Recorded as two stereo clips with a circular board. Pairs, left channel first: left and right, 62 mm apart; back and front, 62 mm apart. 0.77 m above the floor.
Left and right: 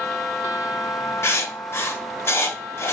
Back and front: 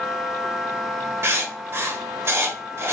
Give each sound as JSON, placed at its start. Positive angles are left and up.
{"t": 1.2, "sound": "writing", "azimuth_deg": 45, "distance_m": 0.5}